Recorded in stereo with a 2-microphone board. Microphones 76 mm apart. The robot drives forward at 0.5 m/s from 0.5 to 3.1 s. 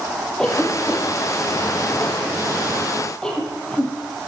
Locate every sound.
0.4 s a cough: 10° left (ahead or behind), 10 m